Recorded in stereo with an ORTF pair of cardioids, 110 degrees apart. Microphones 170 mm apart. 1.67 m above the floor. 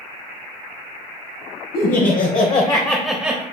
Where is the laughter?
65° left, 1.2 m; by 3.4 s 15° right, 0.9 m.